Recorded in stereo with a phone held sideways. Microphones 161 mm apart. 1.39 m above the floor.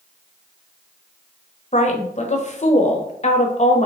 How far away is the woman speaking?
About 0.7 m.